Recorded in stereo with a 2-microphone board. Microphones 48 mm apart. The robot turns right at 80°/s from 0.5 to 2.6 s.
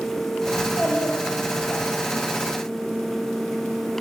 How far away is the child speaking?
About 6.5 m.